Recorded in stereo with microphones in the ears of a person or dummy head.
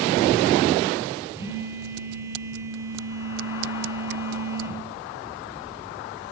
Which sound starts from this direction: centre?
A phone buzzing, at 1.4 s.